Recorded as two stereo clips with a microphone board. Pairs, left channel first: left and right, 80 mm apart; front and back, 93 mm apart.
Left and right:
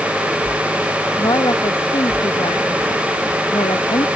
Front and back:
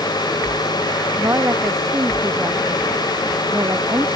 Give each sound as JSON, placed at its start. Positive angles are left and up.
{"t": 1.2, "sound": "a woman speaking", "azimuth_deg": 120}